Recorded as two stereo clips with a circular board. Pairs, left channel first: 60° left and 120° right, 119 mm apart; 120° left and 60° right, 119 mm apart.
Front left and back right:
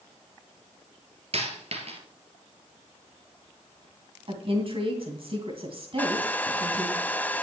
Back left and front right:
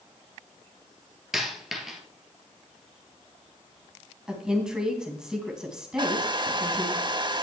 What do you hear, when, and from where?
1.3 s a dropped coin: 145° right, 2.5 m
4.3 s a woman speaking: 145° right, 2.5 m
6.0 s a hair dryer: 15° right, 0.5 m